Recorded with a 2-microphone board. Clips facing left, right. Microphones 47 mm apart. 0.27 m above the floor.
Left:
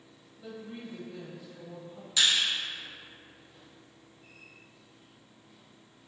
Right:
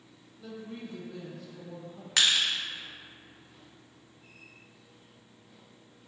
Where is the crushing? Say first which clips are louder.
Right 1 dB; 65° right (ahead or behind), 0.6 m.